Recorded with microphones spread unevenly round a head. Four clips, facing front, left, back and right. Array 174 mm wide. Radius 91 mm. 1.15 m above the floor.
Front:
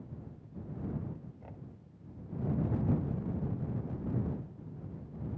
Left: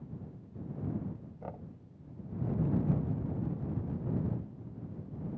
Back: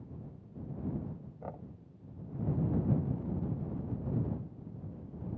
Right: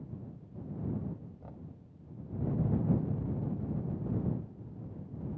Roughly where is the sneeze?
I don't hear a sneeze.